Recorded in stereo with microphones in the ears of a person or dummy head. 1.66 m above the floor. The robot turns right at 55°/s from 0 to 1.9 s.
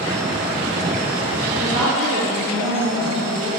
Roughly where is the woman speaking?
Right.